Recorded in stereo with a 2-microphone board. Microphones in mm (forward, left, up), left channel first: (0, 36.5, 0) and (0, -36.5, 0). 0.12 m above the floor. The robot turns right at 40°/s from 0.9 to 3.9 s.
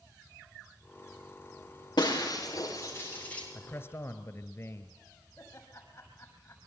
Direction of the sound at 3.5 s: 25° left (ahead or behind).